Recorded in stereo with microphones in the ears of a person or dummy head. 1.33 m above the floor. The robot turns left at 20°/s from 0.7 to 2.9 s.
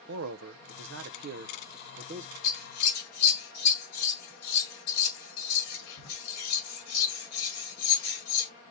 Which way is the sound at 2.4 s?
55° left (ahead or behind).